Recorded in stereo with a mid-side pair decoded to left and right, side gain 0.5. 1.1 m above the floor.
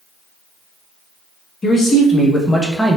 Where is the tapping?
No tapping in this recording.